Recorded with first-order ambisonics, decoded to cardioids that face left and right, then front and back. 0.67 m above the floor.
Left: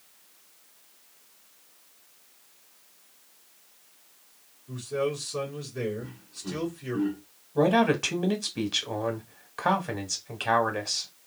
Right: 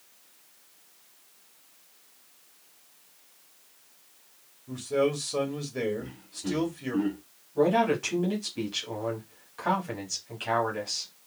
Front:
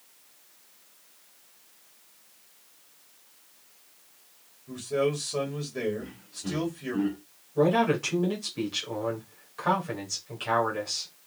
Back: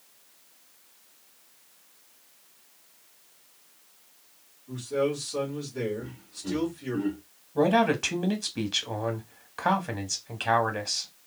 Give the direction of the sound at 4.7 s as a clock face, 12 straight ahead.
2 o'clock.